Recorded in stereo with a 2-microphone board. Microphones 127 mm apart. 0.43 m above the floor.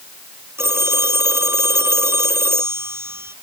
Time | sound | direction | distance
0.6 | a phone ringing | 20° right (ahead or behind) | ?